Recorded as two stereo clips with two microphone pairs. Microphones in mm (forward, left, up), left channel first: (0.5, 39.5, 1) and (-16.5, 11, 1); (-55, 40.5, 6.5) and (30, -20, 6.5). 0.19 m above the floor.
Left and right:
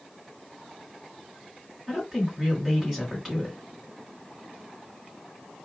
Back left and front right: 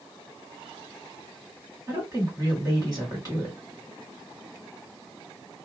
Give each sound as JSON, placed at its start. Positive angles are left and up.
{"t": 1.9, "sound": "a woman speaking", "azimuth_deg": -45, "distance_m": 2.0}